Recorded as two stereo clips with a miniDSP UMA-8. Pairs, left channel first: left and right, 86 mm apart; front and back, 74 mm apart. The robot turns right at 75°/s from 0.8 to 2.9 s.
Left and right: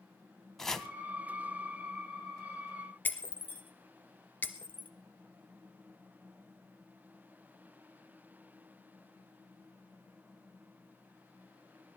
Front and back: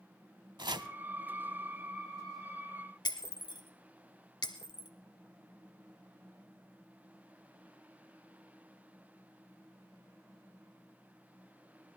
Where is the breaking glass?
20° left, 1.5 m.